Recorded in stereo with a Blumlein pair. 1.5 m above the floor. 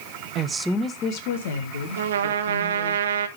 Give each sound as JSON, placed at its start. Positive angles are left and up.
{"t": 0.3, "sound": "a woman speaking", "azimuth_deg": -35, "distance_m": 0.9}
{"t": 2.0, "sound": "a trumpet", "azimuth_deg": -65, "distance_m": 1.2}